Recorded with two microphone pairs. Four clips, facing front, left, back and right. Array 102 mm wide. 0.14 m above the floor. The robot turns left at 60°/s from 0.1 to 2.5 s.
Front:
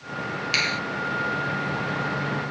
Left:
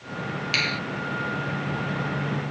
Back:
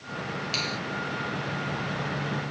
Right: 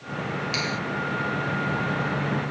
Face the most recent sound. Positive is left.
turn(degrees=-100)